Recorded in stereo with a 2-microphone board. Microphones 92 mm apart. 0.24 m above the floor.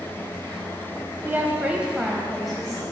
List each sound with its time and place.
1.2 s a woman speaking: 20° right (ahead or behind), 1.0 m; by 2.8 s 5° left (ahead or behind), 1.4 m